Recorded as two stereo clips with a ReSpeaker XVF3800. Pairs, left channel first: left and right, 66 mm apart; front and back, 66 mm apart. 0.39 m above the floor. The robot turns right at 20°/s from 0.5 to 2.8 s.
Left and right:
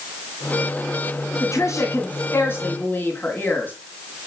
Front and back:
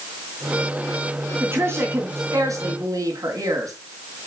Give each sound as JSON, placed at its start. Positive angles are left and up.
{"t": 1.4, "sound": "a woman speaking", "azimuth_deg": 130, "distance_m": 3.0}